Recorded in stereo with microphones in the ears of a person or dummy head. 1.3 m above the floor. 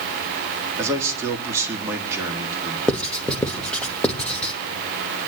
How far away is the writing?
About 1.1 m.